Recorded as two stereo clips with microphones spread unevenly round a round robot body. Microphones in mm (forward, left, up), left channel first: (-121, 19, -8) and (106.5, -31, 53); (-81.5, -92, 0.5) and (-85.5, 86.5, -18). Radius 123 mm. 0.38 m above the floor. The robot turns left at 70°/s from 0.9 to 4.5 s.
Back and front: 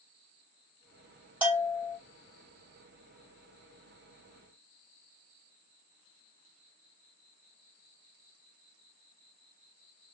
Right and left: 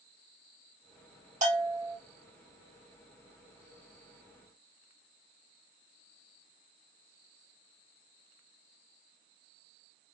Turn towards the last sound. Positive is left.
turn(degrees=-135)